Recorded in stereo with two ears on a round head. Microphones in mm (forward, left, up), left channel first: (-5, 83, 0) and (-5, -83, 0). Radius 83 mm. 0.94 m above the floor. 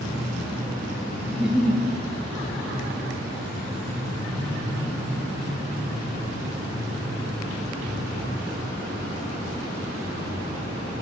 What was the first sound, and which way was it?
A giggle, 5° right (ahead or behind).